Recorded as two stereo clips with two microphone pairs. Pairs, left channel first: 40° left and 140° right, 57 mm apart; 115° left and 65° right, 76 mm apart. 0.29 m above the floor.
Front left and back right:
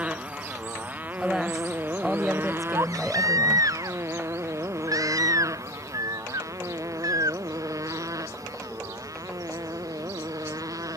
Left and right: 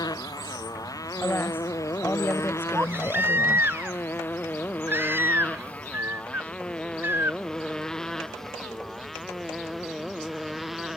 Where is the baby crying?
130° right.